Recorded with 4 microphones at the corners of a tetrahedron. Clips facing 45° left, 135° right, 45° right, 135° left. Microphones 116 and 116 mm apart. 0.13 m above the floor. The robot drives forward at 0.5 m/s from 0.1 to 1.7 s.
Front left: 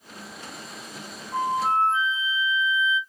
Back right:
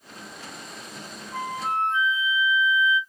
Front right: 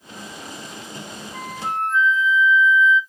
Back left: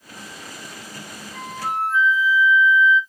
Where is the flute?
45° left, 1.6 m; by 3.0 s 60° left, 1.6 m.